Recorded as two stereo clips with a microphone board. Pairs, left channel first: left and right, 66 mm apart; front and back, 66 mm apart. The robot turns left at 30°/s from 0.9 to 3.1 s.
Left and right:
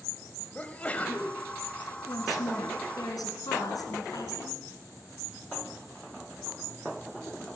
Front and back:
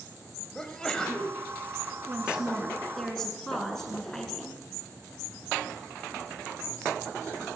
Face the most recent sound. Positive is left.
turn(degrees=80)